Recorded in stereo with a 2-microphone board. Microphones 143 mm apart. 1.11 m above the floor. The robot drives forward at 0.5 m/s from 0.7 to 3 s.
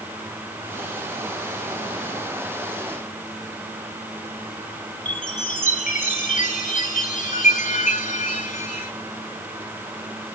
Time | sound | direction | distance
5.0 | a chime | 60° left (ahead or behind) | 2.5 m